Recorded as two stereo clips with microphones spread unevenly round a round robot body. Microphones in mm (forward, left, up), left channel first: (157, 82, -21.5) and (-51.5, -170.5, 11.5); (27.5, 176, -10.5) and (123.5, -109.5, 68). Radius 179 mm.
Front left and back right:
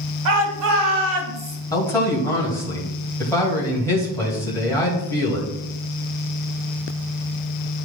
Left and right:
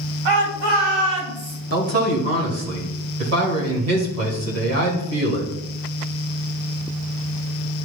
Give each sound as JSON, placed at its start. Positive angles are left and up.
{"t": 0.2, "sound": "a shout", "azimuth_deg": -110, "distance_m": 2.5}
{"t": 1.7, "sound": "a man speaking", "azimuth_deg": -30, "distance_m": 2.0}